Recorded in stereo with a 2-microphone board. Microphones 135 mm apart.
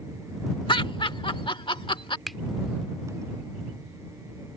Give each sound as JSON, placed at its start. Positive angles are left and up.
{"t": 0.7, "sound": "laughter", "side_deg": 40}
{"t": 2.3, "sound": "a finger snap", "side_deg": 0}